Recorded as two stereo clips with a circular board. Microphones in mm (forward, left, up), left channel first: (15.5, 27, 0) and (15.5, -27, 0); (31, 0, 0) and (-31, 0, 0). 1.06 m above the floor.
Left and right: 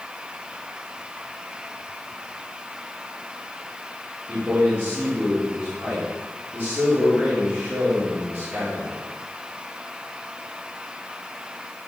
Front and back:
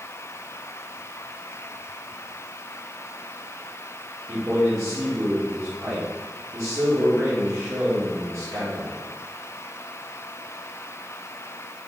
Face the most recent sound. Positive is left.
turn(degrees=-145)